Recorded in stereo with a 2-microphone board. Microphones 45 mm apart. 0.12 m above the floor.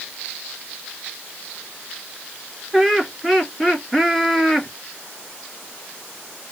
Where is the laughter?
Centre (ahead or behind), 1.7 m.